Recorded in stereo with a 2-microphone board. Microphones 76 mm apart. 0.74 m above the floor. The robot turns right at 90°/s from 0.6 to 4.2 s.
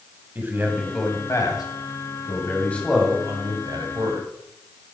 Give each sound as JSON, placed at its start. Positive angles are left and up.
{"t": 0.3, "sound": "a man speaking", "azimuth_deg": -25, "distance_m": 3.5}